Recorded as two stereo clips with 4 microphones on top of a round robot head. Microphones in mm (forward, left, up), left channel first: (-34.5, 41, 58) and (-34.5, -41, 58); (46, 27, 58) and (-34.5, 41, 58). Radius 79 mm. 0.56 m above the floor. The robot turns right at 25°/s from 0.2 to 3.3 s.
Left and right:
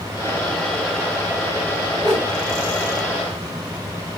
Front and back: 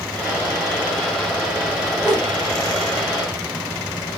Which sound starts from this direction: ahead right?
A whoosh, at 2.0 s.